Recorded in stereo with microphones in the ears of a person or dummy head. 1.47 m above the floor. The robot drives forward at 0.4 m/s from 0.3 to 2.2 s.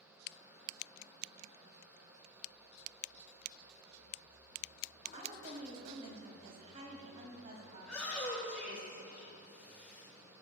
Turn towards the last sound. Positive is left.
turn(degrees=5)  # may be behind; listen again after turning